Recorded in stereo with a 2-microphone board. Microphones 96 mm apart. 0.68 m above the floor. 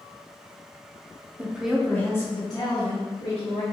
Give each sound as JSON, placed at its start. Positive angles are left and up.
{"t": 1.4, "sound": "a woman speaking", "side_deg": -15, "distance_m": 0.6}